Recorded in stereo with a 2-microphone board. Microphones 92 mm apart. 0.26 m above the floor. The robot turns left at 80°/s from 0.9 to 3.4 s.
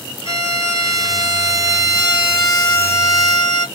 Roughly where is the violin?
Ahead right.